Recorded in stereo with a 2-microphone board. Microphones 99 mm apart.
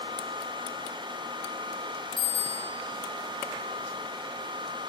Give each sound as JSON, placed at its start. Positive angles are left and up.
{"t": 2.2, "sound": "a bicycle bell", "side_deg": 55, "distance_m": 4.5}